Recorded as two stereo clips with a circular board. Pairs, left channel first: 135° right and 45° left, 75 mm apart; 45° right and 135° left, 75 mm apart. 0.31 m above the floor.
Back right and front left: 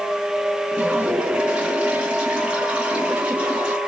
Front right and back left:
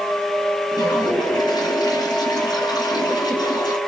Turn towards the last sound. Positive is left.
turn(degrees=-30)